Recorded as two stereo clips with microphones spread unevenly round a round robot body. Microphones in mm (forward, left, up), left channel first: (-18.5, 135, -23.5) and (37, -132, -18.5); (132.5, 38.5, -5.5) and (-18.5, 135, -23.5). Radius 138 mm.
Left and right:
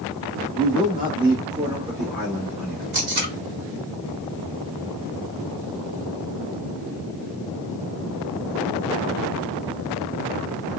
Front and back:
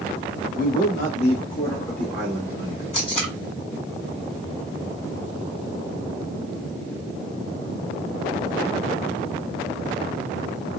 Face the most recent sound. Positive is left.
turn(degrees=-70)